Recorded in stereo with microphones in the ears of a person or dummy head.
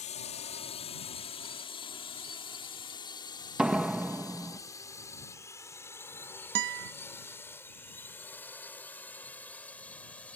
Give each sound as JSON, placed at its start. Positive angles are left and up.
{"t": 0.0, "sound": "a drone", "side_deg": 35}
{"t": 3.6, "sound": "a door slam", "side_deg": 0}
{"t": 6.5, "sound": "a guitar", "side_deg": -65}